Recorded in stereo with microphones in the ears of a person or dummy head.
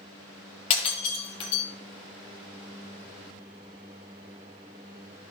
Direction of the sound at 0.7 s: 35° left (ahead or behind).